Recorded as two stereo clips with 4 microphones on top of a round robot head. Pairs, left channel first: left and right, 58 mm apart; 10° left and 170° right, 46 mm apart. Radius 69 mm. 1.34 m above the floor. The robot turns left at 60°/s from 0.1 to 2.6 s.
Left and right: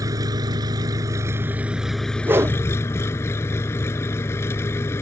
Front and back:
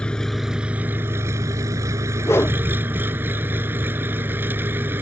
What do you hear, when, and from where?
0.0 s an engine running: 65° right; by 5.0 s 145° left
2.2 s a whoosh: 35° right; by 2.6 s 55° right